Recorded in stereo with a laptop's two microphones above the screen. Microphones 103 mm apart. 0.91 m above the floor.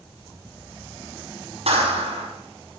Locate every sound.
1.7 s a clap: 70° right (ahead or behind), 7 m